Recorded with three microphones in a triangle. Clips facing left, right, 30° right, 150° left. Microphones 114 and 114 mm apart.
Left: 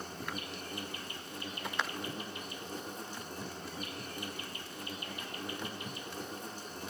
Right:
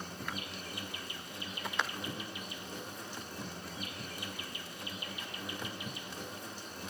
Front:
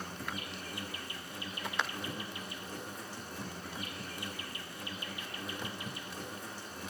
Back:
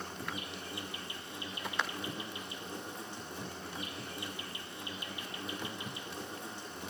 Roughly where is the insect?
Left.